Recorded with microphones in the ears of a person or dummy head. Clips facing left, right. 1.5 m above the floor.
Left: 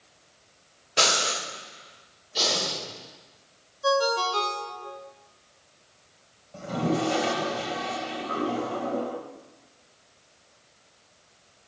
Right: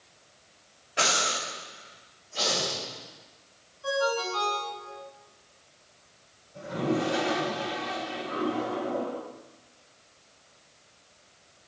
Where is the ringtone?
65° left (ahead or behind), 2.5 m.